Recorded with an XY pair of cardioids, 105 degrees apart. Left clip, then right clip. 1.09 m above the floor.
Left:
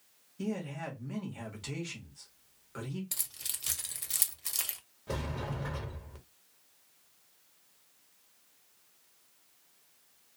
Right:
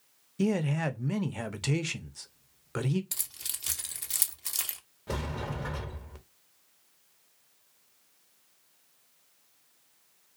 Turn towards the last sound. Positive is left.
turn(degrees=-25)